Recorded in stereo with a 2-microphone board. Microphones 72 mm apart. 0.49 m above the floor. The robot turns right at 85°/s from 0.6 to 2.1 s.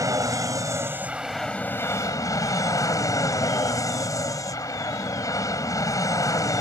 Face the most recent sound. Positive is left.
turn(degrees=65)